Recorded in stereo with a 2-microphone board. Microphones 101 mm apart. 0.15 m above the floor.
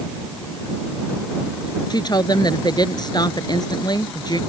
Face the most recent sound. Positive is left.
turn(degrees=45)  # may be behind; listen again after turning